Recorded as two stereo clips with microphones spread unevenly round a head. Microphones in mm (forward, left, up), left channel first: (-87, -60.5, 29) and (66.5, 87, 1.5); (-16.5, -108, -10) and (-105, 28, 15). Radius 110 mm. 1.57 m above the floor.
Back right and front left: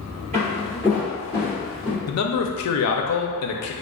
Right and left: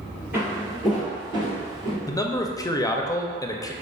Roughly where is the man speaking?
Behind right.